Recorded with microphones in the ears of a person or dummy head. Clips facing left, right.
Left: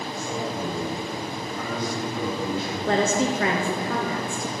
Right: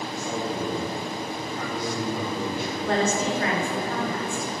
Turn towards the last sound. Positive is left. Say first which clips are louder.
# left 2 dB
turn(degrees=50)  # may be behind; listen again after turning